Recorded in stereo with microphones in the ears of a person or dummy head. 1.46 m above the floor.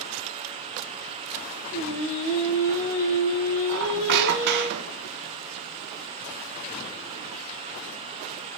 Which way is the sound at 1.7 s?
70° left (ahead or behind).